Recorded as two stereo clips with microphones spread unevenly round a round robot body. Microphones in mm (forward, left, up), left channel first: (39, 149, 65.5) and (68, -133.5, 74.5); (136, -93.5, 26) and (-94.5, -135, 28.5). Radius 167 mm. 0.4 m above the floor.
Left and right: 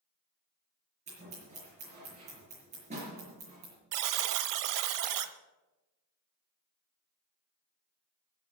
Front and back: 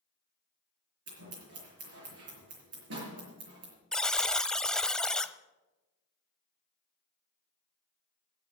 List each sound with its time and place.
1.1 s scissors: 155° right, 5.5 m
3.9 s a buzzer: 75° right, 1.0 m